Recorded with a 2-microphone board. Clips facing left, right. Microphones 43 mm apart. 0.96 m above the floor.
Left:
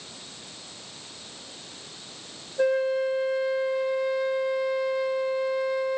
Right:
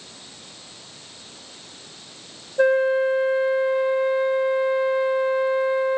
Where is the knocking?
I don't hear knocking.